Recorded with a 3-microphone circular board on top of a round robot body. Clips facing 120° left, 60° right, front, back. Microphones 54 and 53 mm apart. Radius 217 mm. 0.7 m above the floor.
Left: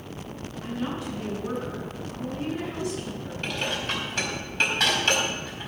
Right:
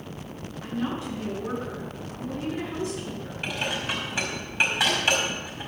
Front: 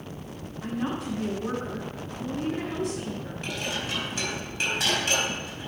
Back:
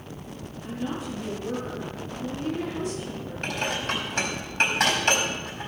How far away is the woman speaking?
About 7.5 m.